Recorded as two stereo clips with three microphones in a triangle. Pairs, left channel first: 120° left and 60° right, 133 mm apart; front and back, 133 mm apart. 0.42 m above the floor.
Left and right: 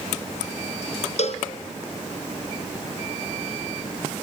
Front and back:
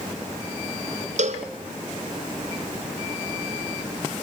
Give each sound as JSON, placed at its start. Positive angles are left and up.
{"t": 1.2, "sound": "a cowbell", "azimuth_deg": 155, "distance_m": 1.6}